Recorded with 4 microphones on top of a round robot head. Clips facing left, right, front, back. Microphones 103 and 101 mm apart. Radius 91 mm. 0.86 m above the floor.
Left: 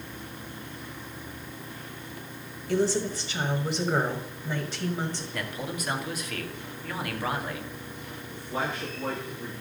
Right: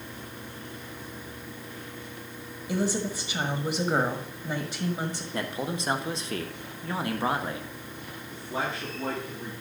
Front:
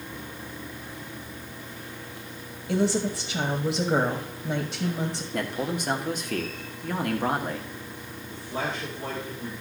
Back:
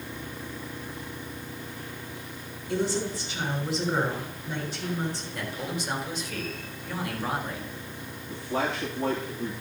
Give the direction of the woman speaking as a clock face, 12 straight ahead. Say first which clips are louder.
Left 3 dB, front 3 dB; 1 o'clock.